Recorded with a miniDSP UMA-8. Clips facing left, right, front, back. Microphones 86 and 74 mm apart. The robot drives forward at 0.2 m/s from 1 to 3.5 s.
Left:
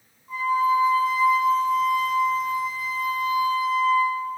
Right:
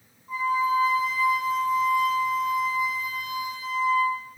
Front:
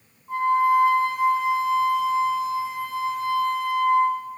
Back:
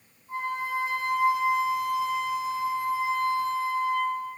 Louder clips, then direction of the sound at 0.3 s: Left 3 dB, front 11 dB; 5° right.